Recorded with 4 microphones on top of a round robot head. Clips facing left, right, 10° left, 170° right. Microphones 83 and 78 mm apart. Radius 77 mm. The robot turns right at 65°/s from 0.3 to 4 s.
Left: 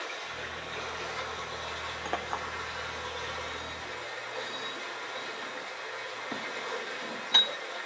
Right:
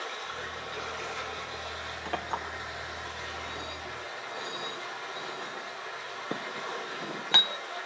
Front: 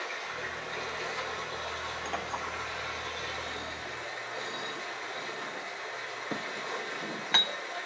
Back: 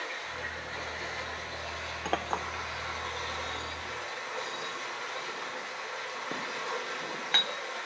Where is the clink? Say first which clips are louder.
Right 1 dB, back 6 dB; 155° left, 0.9 m; by 7.5 s 75° right, 0.9 m.